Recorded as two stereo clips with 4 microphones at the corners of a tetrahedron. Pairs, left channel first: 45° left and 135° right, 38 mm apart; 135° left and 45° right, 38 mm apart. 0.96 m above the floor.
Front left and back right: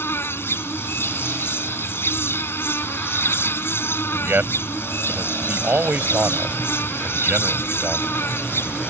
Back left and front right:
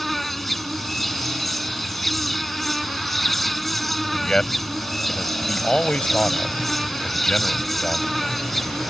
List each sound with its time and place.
0.0 s an insect: 50° left
4.1 s a man speaking: 160° right